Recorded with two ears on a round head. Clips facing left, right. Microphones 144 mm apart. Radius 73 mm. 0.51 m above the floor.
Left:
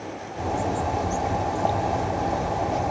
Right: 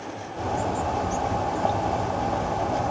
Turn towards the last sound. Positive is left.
turn(degrees=5)  # may be behind; listen again after turning